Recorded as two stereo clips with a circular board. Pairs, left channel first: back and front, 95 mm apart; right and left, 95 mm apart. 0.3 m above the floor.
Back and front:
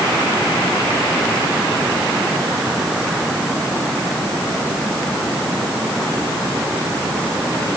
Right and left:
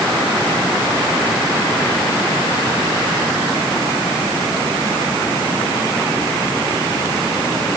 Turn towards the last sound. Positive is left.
No sound to turn to.